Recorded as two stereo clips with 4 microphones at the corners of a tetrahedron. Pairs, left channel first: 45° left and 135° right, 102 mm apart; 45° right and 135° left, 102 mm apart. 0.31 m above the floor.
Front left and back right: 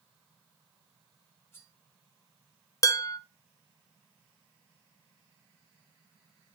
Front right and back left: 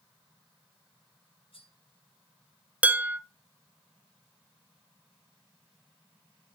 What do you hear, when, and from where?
1.5 s cutlery clinking: 25° right, 2.5 m
2.8 s dishes clattering: 70° left, 0.6 m